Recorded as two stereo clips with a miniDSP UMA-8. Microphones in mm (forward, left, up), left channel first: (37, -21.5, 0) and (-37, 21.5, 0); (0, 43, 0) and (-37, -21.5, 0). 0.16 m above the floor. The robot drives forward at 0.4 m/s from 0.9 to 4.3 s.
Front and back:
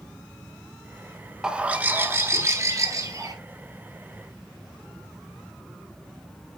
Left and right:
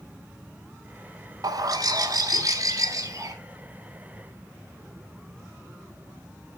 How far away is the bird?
About 0.5 m.